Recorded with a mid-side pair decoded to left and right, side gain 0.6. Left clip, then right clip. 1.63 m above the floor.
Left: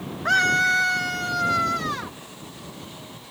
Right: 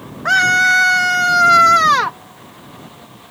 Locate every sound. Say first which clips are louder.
0.2 s a scream: right 7 dB; 30° right; by 2.2 s 75° right